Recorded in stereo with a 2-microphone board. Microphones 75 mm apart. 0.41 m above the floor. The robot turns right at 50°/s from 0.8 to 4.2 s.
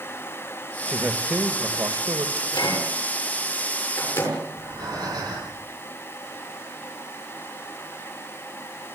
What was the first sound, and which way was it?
A man speaking, straight behind.